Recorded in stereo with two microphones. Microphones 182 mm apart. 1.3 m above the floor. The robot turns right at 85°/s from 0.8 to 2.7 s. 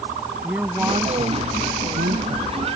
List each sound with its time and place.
0.4 s a woman speaking: 170° right; by 2.5 s 30° right